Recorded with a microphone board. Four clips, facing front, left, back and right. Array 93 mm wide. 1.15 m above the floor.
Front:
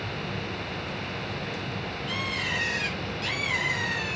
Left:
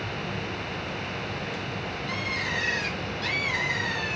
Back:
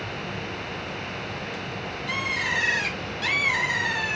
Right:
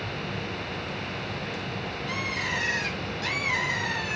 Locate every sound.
2.1 s a bird: 175° right, 4.5 m